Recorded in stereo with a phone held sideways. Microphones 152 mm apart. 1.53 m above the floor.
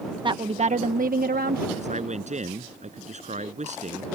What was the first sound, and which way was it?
A woman speaking, 30° right (ahead or behind).